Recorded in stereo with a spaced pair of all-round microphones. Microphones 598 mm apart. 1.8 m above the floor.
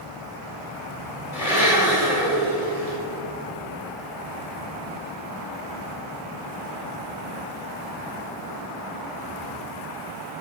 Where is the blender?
65° left (ahead or behind), 2.5 m.